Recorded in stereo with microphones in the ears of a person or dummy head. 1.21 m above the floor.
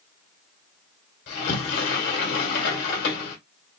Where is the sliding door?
55° left (ahead or behind), 1.5 m.